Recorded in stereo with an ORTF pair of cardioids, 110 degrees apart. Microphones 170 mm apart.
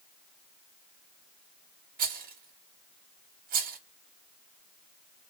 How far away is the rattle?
About 0.9 m.